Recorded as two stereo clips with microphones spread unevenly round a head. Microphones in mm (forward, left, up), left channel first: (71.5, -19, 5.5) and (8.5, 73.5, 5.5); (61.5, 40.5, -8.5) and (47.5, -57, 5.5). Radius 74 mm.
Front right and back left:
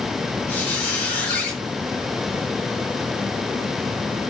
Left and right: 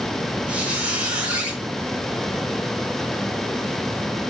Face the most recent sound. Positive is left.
turn(degrees=-100)